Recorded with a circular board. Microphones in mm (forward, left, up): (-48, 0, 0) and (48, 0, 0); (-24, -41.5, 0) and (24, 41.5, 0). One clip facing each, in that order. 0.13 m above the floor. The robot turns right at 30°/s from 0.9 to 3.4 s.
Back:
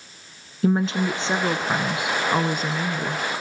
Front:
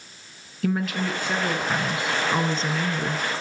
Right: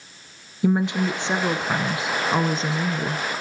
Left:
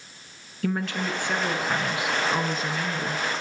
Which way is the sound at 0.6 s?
170° right.